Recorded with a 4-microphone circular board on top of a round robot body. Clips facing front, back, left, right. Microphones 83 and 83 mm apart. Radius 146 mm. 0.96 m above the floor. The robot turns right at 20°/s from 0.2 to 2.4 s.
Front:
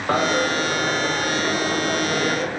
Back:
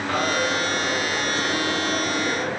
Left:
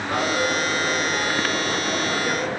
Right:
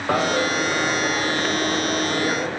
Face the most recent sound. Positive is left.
turn(degrees=-10)